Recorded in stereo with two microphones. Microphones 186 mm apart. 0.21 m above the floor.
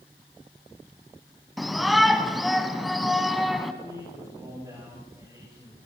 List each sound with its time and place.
1.6 s a shout: centre (ahead or behind), 1.4 m
3.8 s a man speaking: 20° right (ahead or behind), 10 m